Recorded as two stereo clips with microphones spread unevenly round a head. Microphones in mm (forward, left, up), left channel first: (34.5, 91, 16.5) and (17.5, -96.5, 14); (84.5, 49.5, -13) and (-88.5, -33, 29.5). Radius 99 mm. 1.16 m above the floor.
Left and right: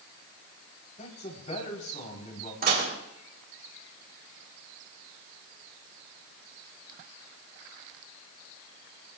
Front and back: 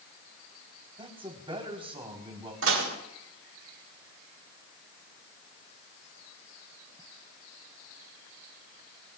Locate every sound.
1.0 s a man speaking: 140° left, 4 m
2.6 s dishes clattering: 140° right, 3.5 m